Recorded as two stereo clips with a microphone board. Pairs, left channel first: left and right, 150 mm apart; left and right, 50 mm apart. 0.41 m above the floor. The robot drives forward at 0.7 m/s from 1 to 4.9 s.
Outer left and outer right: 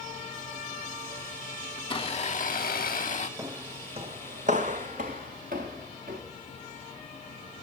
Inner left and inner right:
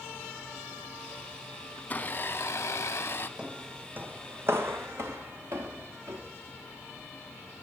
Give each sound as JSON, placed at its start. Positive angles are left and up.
{"t": 1.8, "sound": "a blender", "side_deg": 35, "distance_m": 0.8}
{"t": 3.4, "sound": "footsteps", "side_deg": -20, "distance_m": 0.8}